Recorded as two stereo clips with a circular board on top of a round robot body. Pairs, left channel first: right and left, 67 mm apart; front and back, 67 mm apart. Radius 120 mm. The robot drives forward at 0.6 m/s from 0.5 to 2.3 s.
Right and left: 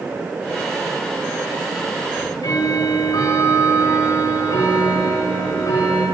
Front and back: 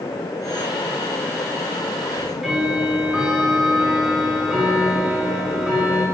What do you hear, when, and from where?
2.1 s ticking: 90° right, 5 m; by 6.0 s 95° right, 5 m